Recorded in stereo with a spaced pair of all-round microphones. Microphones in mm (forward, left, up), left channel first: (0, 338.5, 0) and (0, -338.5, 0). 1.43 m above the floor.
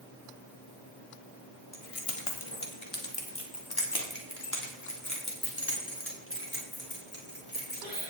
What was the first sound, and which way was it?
Keys jangling, 60° left (ahead or behind).